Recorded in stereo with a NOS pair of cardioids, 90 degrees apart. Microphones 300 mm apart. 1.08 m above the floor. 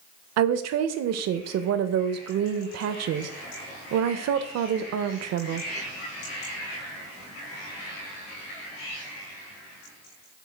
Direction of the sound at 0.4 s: 60° right.